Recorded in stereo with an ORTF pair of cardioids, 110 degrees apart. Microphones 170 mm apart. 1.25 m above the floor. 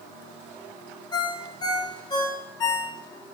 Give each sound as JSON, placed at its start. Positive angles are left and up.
{"t": 1.1, "sound": "a ringtone", "azimuth_deg": 25, "distance_m": 0.5}